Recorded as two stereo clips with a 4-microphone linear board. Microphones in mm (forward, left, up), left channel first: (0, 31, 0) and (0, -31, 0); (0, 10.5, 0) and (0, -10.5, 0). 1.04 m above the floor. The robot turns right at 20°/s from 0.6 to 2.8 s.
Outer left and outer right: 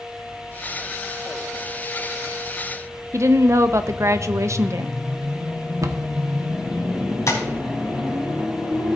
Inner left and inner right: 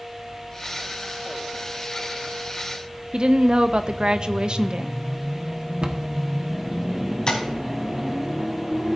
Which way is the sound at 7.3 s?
55° left (ahead or behind).